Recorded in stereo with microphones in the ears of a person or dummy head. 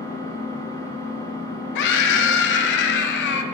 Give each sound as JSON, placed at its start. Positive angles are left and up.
{"t": 0.0, "sound": "an engine running", "side_deg": 15, "distance_m": 1.0}
{"t": 1.8, "sound": "a scream", "side_deg": 70, "distance_m": 0.9}